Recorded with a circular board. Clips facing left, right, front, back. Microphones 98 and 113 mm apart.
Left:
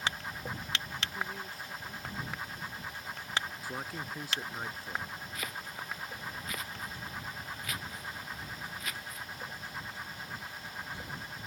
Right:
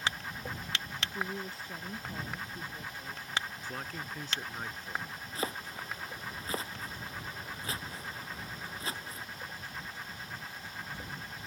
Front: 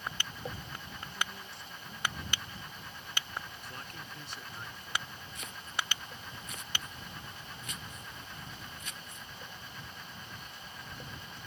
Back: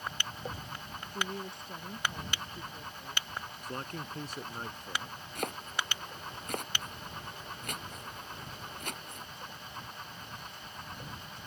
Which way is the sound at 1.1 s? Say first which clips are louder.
Right 2 dB, back 4 dB; 150° right.